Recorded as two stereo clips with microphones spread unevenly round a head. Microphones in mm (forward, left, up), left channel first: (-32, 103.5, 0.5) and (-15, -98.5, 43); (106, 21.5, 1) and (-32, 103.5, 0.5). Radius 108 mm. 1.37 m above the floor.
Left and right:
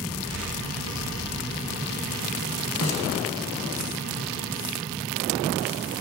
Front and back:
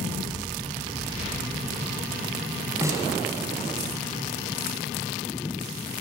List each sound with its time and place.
2.8 s a snare drum: 75° left, 8 m